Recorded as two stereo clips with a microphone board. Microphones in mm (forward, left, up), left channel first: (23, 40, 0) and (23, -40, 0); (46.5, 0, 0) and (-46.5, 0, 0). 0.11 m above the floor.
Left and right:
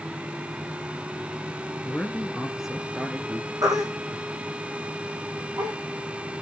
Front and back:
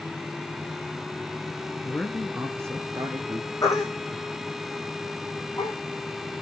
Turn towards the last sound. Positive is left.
turn(degrees=-50)